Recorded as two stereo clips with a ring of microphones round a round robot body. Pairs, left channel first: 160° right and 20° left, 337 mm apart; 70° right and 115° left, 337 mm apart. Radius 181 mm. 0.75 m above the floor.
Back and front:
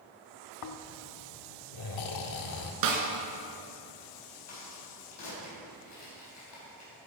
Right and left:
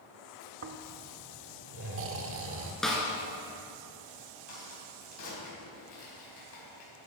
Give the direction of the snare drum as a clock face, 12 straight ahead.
11 o'clock.